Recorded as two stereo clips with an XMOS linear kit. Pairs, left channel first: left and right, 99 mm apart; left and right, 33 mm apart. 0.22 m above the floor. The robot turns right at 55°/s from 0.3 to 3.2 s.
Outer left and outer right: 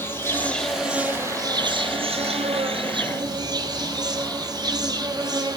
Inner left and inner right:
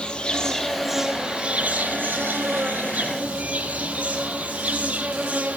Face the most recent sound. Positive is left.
turn(degrees=-45)